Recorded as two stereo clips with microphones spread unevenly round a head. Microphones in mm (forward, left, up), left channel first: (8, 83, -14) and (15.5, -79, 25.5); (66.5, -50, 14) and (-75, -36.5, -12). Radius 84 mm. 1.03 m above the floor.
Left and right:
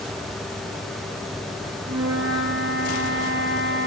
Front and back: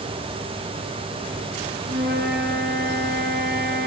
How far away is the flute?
About 8 m.